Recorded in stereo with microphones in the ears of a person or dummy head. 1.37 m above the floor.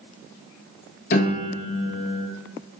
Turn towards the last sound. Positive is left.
turn(degrees=50)  # may be behind; listen again after turning